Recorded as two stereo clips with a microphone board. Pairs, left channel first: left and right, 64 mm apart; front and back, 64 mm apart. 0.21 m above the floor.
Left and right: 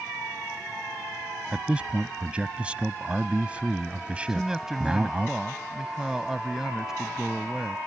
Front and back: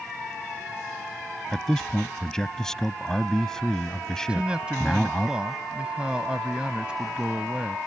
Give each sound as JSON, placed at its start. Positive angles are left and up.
{"t": 1.5, "sound": "a man speaking", "azimuth_deg": -65}
{"t": 4.3, "sound": "a man speaking", "azimuth_deg": -150}